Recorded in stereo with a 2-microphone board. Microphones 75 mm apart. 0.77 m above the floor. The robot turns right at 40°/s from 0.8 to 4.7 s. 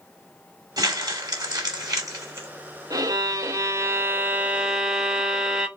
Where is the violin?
85° right, 0.6 m; by 5.7 s 10° right, 0.6 m.